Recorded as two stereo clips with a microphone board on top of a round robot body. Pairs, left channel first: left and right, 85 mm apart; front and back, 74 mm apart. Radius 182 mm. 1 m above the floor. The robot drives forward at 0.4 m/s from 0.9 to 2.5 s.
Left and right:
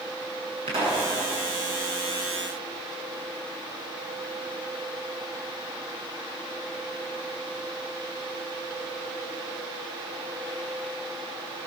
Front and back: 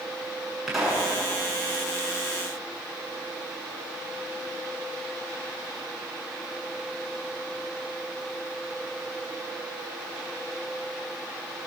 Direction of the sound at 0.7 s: 95° right.